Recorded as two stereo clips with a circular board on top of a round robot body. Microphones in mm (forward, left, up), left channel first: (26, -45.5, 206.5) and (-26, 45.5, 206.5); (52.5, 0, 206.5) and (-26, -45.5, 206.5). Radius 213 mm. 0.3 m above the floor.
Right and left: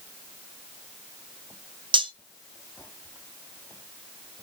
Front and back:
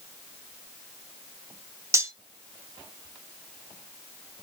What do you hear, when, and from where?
1.9 s cutlery clinking: 155° left, 0.8 m